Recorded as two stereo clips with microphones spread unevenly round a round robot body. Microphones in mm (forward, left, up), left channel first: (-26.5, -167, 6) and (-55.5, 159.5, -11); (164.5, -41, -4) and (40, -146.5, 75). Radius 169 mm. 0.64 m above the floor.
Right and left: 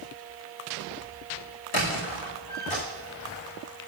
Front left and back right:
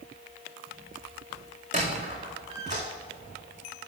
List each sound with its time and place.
1.7 s a squeak: 105° right, 4 m